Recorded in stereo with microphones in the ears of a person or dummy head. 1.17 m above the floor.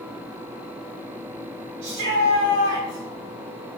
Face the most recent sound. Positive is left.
turn(degrees=-65)  # may be behind; listen again after turning